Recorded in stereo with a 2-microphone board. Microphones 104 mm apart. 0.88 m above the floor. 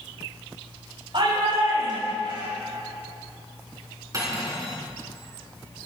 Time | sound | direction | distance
1.1 | a shout | 55° right (ahead or behind) | 5.5 m
4.1 | cutlery clinking | 35° right (ahead or behind) | 5.5 m